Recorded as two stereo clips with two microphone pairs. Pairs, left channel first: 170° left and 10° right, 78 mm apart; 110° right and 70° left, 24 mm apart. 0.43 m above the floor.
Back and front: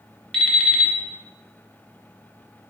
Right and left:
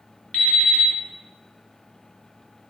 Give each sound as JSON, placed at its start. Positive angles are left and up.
{"t": 0.3, "sound": "an alarm clock", "azimuth_deg": -110, "distance_m": 1.0}